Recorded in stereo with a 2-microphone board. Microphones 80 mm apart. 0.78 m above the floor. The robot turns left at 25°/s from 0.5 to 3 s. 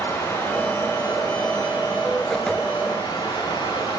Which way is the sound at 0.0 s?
145° left.